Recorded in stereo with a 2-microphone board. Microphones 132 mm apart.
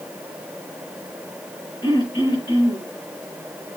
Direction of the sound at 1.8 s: 30° left (ahead or behind).